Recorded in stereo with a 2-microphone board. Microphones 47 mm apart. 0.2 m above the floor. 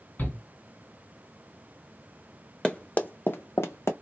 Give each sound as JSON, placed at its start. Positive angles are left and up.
{"t": 0.2, "sound": "a shout", "side_deg": 45, "distance_m": 2.5}
{"t": 2.6, "sound": "running footsteps", "side_deg": 20, "distance_m": 0.6}